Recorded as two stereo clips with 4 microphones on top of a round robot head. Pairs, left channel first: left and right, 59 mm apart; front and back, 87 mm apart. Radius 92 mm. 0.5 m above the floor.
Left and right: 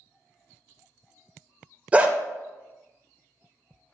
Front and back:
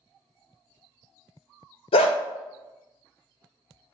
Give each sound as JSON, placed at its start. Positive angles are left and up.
{"t": 1.9, "sound": "a dog barking", "azimuth_deg": -20, "distance_m": 0.5}